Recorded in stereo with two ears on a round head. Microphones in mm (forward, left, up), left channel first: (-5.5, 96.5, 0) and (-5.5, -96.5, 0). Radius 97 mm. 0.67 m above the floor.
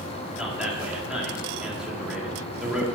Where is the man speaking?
5° right (ahead or behind), 1.7 m.